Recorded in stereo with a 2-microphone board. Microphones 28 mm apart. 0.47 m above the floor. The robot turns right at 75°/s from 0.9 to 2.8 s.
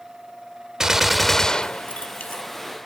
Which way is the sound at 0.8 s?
15° right.